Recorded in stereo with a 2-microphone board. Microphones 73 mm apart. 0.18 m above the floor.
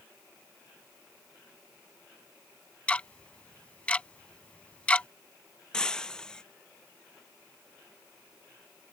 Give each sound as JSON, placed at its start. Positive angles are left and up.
{"t": 2.9, "sound": "ticking", "side_deg": 15}
{"t": 5.7, "sound": "breaking glass", "side_deg": 10}